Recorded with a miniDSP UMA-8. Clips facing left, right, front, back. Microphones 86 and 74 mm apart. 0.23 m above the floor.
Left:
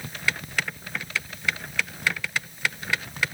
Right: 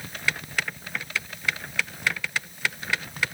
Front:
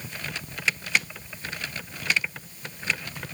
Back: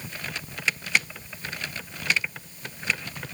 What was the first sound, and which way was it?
Only background noise.